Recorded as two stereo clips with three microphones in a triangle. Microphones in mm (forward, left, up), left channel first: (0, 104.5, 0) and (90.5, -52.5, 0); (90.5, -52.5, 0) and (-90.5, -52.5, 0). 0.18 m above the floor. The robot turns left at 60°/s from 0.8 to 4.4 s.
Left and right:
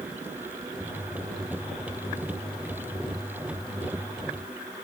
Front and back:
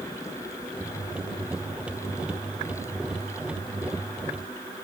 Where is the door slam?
I don't hear a door slam.